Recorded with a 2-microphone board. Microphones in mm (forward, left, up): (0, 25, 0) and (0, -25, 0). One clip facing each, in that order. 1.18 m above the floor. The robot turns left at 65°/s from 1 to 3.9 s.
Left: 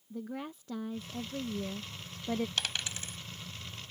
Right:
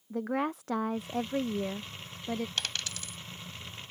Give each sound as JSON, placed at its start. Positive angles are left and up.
{"t": 0.1, "sound": "a woman speaking", "azimuth_deg": -90}
{"t": 2.6, "sound": "a dropped coin", "side_deg": 0}